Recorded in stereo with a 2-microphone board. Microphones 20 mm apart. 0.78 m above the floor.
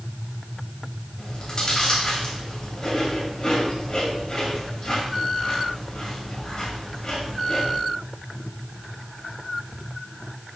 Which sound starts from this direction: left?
Chewing, at 1.2 s.